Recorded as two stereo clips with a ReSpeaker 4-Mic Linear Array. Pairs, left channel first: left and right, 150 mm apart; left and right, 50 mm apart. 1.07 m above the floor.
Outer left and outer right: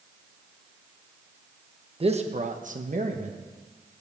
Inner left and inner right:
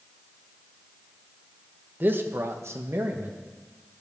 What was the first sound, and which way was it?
A man speaking, 40° right (ahead or behind).